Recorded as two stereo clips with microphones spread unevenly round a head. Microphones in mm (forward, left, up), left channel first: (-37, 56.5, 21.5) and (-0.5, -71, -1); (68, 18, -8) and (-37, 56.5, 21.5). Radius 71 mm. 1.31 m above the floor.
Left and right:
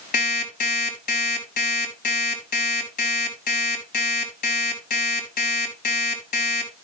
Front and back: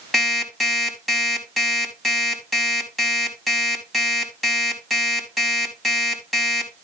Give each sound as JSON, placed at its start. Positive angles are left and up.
{"t": 0.1, "sound": "an alarm clock", "azimuth_deg": 70, "distance_m": 5.0}